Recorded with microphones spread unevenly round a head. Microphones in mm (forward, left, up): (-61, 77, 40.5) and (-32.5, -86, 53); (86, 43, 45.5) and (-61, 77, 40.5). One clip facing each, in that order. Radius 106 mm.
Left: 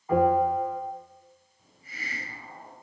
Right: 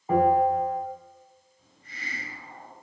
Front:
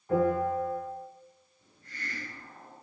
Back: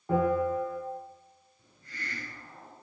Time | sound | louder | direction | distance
0.1 | a bell | right 1 dB, even | 145° right | 7 m
1.6 | a hiss | even, back 1 dB | 175° right | 4 m